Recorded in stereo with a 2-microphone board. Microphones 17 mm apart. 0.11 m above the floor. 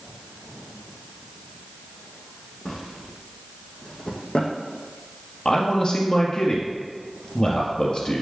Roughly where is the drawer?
Left.